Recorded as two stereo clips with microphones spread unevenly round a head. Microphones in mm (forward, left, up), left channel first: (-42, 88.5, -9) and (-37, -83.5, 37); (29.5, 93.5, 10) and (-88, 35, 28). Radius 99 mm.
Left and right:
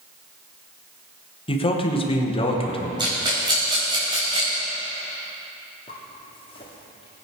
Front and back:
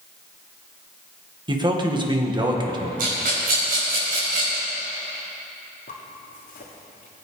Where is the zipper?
20° left, 2 m.